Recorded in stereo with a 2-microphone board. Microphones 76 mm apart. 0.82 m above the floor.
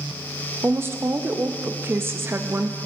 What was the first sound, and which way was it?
A woman speaking, 30° right (ahead or behind).